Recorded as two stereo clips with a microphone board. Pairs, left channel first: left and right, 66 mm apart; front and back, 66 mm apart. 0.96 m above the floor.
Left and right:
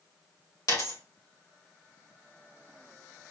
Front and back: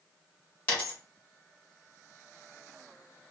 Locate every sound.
0.7 s a dropped coin: 70° left, 1.5 m